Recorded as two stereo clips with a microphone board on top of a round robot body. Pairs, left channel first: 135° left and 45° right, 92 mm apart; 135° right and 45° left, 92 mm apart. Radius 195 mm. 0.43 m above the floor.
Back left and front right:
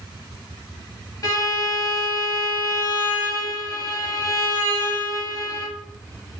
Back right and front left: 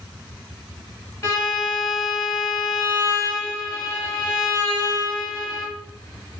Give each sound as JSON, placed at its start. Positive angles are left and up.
{"t": 1.2, "sound": "a violin", "azimuth_deg": 175, "distance_m": 1.4}